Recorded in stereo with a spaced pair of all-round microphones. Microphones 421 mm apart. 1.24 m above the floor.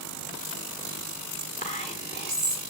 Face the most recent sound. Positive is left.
turn(degrees=20)  # may be behind; listen again after turning